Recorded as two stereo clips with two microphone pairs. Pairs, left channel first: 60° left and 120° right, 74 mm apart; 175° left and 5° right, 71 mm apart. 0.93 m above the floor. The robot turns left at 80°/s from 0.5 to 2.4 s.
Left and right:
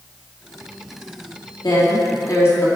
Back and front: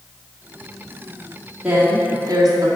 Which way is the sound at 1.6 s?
70° left.